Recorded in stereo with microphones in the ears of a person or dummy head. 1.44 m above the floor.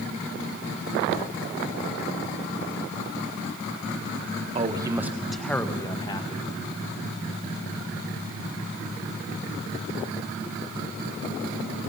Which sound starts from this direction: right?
A man speaking, at 4.5 s.